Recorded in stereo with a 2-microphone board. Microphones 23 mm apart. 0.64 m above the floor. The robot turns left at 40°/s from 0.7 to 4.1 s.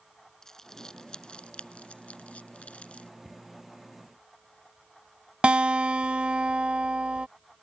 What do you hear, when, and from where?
0.4 s crumpling: 25° left (ahead or behind); by 3.1 s 60° left (ahead or behind)
3.2 s a cupboard door: 10° left (ahead or behind); by 3.5 s centre (ahead or behind)
5.4 s a guitar: 55° right (ahead or behind)